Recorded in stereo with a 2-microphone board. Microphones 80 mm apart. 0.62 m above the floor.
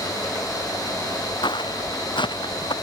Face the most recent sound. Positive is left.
turn(degrees=85)